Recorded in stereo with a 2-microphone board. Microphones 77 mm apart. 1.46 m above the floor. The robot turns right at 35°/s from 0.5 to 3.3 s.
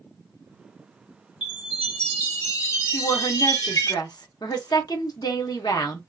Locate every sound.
1.4 s a chime: 15° left, 2 m; by 3.9 s 80° left, 2 m
2.9 s a woman speaking: 75° left (ahead or behind), 0.9 m; by 6.0 s 60° left (ahead or behind), 0.9 m